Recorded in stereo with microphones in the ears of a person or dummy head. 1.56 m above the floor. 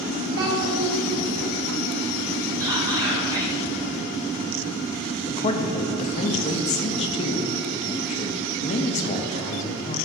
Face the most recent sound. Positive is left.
turn(degrees=35)  # may be behind; listen again after turning